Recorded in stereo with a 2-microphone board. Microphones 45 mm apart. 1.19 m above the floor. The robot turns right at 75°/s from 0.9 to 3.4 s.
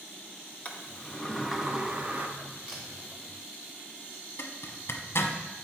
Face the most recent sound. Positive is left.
turn(degrees=65)  # may be behind; listen again after turning